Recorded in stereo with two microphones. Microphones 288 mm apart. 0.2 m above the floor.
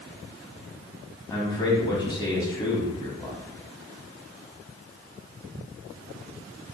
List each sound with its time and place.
1.3 s a man speaking: 15° left (ahead or behind), 1.0 m